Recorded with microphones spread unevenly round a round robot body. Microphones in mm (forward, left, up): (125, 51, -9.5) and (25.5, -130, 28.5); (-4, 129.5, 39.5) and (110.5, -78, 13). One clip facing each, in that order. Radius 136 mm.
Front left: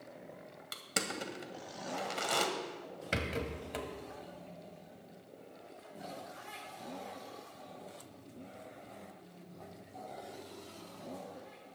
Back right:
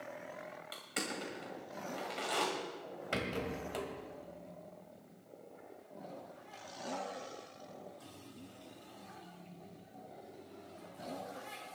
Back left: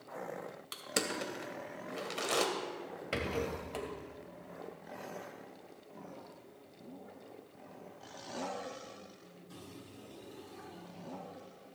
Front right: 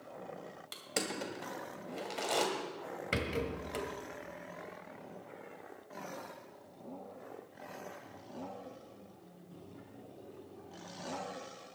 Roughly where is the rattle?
Ahead.